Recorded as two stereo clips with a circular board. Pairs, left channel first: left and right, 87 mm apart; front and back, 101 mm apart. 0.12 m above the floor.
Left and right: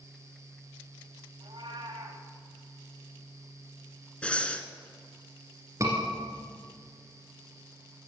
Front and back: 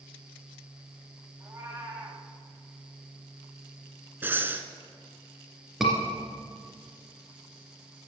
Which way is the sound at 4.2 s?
145° left.